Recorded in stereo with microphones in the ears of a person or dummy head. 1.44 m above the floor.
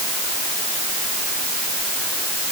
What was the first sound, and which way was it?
Only background noise.